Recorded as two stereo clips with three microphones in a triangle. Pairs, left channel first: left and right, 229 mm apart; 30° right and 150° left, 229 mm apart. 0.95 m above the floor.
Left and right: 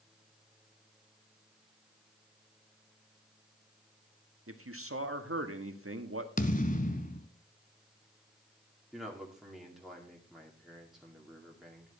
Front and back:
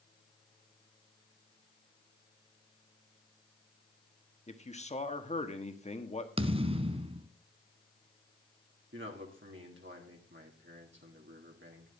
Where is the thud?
105° left, 1.0 m.